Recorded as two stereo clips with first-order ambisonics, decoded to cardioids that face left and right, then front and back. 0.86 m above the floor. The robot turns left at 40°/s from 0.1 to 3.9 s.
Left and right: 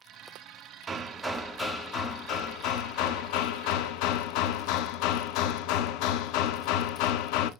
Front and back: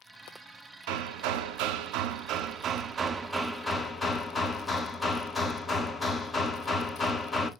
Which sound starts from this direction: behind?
Hammering, at 0.9 s.